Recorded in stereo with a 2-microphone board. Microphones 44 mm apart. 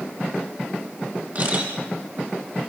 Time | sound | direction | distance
1.4 | a camera shutter | 45° right (ahead or behind) | 5.5 m